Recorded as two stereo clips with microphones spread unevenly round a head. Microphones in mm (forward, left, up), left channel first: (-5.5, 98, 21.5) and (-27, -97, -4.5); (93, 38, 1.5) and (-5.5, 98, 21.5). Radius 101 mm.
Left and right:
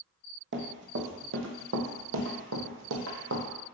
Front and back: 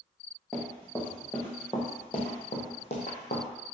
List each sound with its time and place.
0.5 s running footsteps: 125° right, 1.8 m; by 3.4 s 70° right, 1.7 m